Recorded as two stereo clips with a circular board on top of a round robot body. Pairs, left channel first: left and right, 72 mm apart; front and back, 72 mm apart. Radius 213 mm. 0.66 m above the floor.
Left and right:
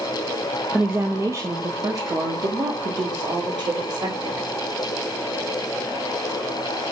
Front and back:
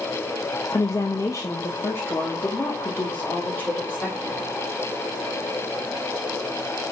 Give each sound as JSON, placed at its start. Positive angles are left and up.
{"t": 0.7, "sound": "a woman speaking", "azimuth_deg": -25, "distance_m": 0.9}